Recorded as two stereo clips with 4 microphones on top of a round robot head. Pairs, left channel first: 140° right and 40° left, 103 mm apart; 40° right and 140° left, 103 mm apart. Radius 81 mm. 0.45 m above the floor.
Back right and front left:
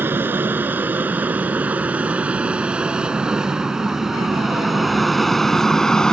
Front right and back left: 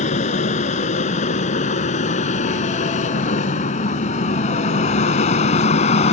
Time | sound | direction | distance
0.0 | an aircraft | 35° right | ?